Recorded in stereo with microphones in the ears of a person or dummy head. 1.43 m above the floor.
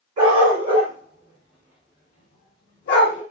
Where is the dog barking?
35° right (ahead or behind), 1.5 m; by 3.2 s 35° left (ahead or behind), 1.3 m.